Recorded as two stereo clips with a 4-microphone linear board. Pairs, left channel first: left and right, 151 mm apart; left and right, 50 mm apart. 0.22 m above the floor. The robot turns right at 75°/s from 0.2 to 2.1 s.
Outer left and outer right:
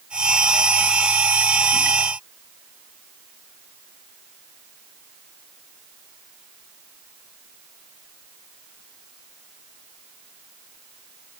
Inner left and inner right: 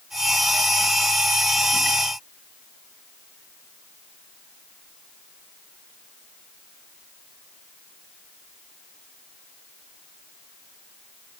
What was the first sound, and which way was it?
Only background noise.